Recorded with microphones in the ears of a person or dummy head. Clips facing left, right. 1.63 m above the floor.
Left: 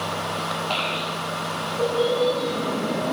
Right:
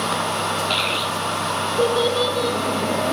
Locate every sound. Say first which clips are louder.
0.7 s a child speaking: right 3 dB; 15° right (ahead or behind), 0.6 m; by 3.1 s 65° right (ahead or behind), 2.0 m